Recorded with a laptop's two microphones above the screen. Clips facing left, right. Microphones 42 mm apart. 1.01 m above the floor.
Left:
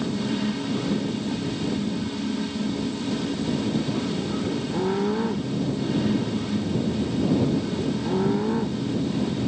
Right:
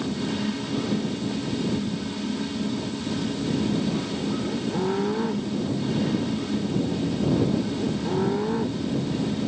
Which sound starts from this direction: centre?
A fan, at 0.0 s.